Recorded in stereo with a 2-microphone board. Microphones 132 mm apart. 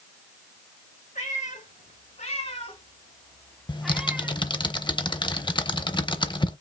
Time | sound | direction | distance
1.1 | a cat meowing | 75° left (ahead or behind) | 2.5 m
3.7 | typing on a keyboard | 35° left (ahead or behind) | 0.6 m